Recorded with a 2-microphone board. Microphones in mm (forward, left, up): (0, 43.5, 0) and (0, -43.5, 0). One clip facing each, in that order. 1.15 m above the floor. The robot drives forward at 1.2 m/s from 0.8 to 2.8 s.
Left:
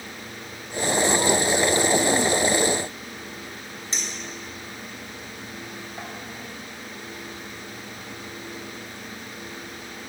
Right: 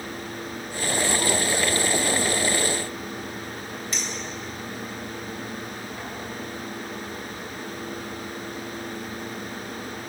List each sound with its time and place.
3.9 s a clink: 30° left (ahead or behind), 4 m